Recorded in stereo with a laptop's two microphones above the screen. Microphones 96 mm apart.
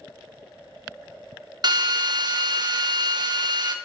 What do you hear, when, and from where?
1.6 s a drill: 50° right (ahead or behind), 0.8 m